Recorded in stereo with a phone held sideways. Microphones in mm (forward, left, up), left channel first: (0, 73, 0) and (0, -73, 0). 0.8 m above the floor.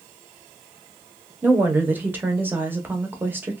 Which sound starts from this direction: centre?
A woman speaking, at 1.4 s.